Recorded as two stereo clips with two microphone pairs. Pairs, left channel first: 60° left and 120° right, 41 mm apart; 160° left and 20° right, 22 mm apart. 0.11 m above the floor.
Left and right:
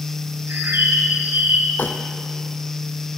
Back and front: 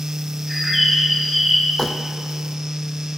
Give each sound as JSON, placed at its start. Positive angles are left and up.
{"t": 0.5, "sound": "a bird", "azimuth_deg": -105, "distance_m": 5.0}
{"t": 1.8, "sound": "crumpling", "azimuth_deg": 80, "distance_m": 2.5}